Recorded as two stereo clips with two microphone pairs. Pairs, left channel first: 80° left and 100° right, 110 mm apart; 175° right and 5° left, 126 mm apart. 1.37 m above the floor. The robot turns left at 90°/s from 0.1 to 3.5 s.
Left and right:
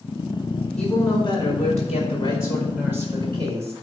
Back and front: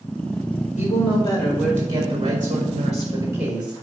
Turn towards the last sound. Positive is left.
turn(degrees=-80)